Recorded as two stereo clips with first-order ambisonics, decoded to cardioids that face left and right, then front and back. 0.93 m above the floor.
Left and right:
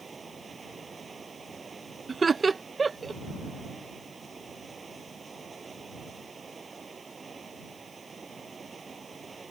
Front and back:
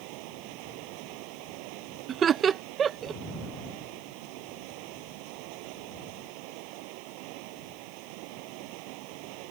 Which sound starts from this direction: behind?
Running water, at 0.0 s.